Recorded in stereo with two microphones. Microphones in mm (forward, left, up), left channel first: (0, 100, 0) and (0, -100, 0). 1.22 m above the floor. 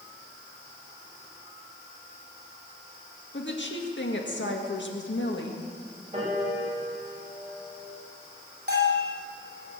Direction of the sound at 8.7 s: 55° right (ahead or behind).